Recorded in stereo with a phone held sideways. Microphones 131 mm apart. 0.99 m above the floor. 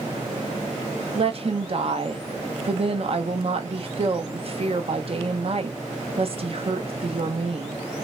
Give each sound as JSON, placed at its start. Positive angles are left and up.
{"t": 1.1, "sound": "a woman speaking", "side_deg": -50, "distance_m": 1.0}